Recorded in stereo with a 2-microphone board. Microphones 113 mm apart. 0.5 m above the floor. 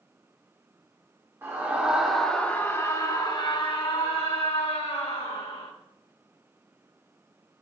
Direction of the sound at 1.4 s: 25° right (ahead or behind).